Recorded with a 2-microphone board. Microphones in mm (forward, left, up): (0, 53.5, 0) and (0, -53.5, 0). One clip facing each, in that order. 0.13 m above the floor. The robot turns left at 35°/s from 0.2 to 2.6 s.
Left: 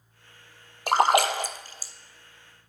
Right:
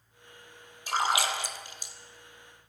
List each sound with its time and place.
0.9 s a splash: 70° left (ahead or behind), 0.7 m; by 1.9 s 35° left (ahead or behind), 0.7 m